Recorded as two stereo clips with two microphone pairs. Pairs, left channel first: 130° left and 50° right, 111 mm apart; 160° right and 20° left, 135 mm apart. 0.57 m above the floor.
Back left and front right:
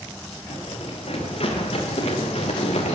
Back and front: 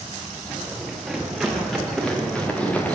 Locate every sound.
0.5 s running footsteps: 105° left, 8 m; by 2.9 s 120° left, 5 m